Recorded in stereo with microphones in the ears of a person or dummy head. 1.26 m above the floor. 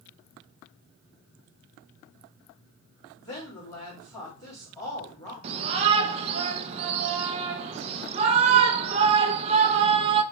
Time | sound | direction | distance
3.2 | a woman speaking | 25° left (ahead or behind) | 2.5 m
5.4 | a shout | 35° right (ahead or behind) | 0.7 m